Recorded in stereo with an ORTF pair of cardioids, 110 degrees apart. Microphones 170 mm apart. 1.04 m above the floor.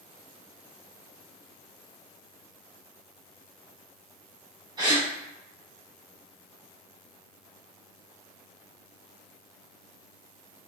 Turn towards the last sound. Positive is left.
turn(degrees=-25)